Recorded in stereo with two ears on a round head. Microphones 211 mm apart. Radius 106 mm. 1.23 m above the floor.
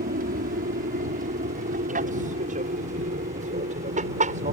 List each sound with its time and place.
0.0 s an aircraft: 35° right (ahead or behind); by 4.5 s 30° right (ahead or behind)